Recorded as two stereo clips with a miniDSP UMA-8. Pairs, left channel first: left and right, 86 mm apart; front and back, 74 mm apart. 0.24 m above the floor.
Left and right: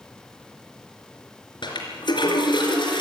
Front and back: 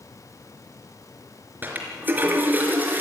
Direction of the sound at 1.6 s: 115° left.